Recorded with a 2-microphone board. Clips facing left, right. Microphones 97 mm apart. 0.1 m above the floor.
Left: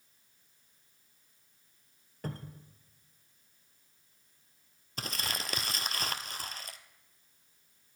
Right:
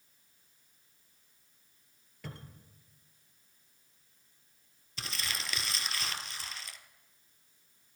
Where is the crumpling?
50° left (ahead or behind), 1.0 m.